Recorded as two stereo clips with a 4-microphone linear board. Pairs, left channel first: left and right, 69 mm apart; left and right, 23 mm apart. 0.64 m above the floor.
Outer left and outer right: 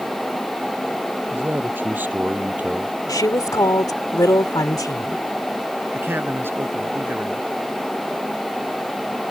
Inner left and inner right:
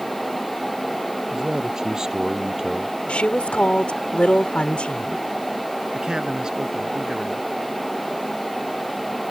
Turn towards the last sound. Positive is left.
turn(degrees=-35)  # may be behind; listen again after turning